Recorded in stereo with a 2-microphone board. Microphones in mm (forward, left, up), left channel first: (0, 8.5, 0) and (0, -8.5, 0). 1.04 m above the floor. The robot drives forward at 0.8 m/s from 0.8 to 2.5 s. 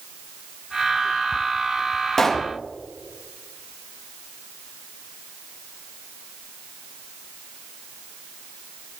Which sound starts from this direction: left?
A pop, at 2.2 s.